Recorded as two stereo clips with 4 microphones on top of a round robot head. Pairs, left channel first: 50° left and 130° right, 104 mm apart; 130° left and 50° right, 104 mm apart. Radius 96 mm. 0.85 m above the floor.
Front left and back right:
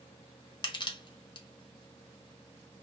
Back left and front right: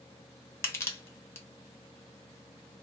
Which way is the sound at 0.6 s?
70° left.